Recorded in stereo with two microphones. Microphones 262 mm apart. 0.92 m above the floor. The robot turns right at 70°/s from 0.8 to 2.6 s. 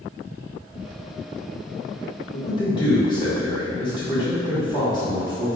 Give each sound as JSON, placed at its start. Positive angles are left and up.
{"t": 2.3, "sound": "a man speaking", "side_deg": 35, "distance_m": 1.7}